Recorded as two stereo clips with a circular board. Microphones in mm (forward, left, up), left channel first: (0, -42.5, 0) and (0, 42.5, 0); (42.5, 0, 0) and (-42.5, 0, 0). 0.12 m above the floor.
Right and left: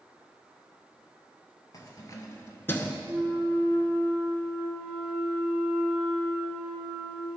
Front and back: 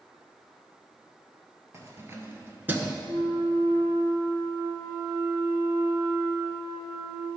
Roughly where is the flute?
Behind.